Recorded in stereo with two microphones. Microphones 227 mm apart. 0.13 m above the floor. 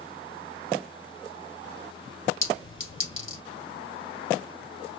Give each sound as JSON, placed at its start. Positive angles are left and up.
{"t": 2.4, "sound": "a clink", "side_deg": 60, "distance_m": 1.8}